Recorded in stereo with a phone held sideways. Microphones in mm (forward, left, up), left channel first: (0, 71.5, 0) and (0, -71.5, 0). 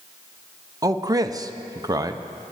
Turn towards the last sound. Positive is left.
turn(degrees=-25)  # may be behind; listen again after turning